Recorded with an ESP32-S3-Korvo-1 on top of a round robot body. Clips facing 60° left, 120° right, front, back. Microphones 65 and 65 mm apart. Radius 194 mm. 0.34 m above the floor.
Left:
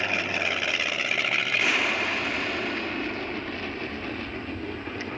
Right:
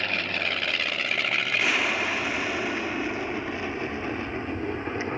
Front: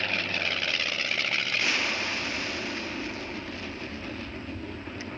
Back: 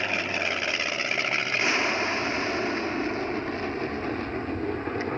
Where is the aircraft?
125° left; by 5.2 s 175° right.